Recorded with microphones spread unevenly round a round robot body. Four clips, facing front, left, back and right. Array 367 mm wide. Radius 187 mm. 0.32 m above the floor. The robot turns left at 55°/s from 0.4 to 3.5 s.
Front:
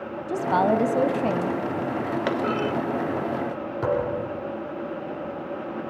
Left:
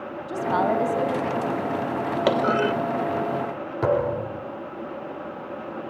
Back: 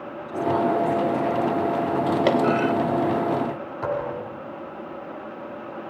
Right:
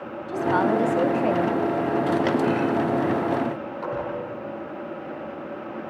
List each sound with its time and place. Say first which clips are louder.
0.3 s a woman speaking: right 1 dB, front 1 dB; 10° left, 2.5 m; by 1.6 s 55° right, 2.5 m
2.3 s a clunk: left 1 dB, back 5 dB; 145° left, 1.1 m; by 2.7 s 120° left, 1.1 m
3.8 s a thud: left 8 dB, front 2 dB; 65° left, 8 m